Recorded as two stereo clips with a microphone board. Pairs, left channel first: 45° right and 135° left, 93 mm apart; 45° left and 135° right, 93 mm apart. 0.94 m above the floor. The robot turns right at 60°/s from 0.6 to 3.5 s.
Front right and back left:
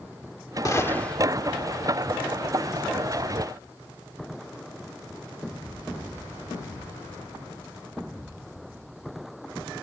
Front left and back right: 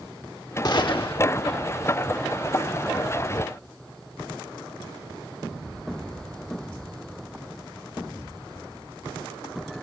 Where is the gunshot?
5° left; by 1.2 s 40° left.